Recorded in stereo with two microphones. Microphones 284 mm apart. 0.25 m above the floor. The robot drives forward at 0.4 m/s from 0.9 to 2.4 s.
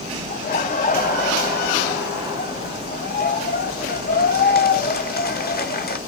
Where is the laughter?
30° left (ahead or behind), 1.2 m; by 6.0 s 35° left (ahead or behind), 1.2 m.